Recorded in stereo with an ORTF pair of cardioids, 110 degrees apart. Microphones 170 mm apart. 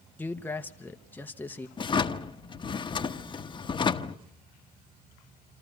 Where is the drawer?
30° left, 1.1 m.